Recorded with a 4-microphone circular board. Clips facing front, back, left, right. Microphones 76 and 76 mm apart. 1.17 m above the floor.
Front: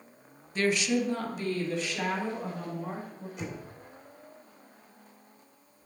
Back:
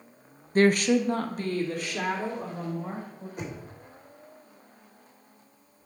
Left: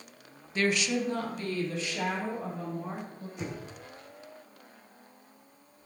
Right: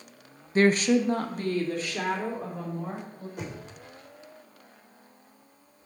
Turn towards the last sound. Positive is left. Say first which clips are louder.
# back 2 dB, left 1 dB
turn(degrees=-130)